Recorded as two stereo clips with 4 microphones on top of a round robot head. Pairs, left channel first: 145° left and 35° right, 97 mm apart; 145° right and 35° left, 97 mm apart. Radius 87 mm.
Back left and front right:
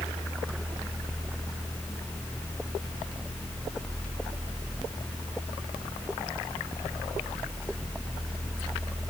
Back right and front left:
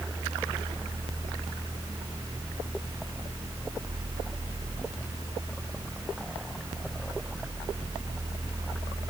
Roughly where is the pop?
No pop in this recording.